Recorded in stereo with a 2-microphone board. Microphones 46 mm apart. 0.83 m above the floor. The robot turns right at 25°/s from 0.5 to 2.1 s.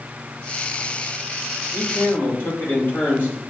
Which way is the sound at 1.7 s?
55° left (ahead or behind).